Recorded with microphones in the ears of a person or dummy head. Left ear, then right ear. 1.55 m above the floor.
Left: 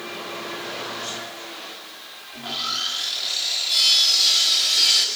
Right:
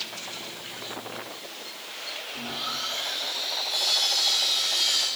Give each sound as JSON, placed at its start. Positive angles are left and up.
{"t": 2.3, "sound": "sawing", "side_deg": 55, "distance_m": 4.0}